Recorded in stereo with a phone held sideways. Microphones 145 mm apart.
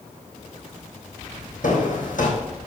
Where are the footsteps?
65° left (ahead or behind), 3.5 m.